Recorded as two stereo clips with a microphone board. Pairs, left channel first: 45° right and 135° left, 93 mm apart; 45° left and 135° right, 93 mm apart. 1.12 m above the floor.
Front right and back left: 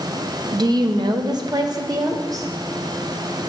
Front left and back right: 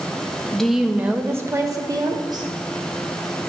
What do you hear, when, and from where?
0.5 s a woman speaking: 120° left, 0.5 m; by 2.5 s 175° right, 1.2 m